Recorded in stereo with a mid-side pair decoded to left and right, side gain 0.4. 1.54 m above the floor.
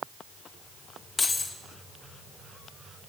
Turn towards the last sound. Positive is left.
turn(degrees=40)